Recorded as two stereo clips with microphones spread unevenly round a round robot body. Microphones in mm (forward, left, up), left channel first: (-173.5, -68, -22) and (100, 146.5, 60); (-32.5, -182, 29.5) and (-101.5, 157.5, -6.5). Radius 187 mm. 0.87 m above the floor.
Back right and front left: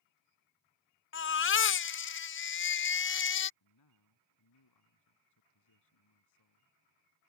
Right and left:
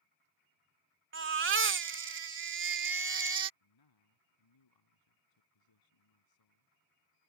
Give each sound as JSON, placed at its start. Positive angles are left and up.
{"t": 1.1, "sound": "a baby crying", "azimuth_deg": 160}
{"t": 3.6, "sound": "a man speaking", "azimuth_deg": -100}